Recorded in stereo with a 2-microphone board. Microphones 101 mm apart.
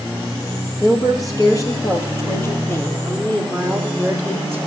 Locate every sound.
0.8 s a woman speaking: 40° left (ahead or behind), 3.5 m; by 4.6 s 5° left (ahead or behind), 3.5 m